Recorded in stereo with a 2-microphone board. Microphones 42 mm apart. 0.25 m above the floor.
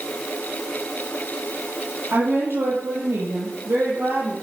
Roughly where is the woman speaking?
Right.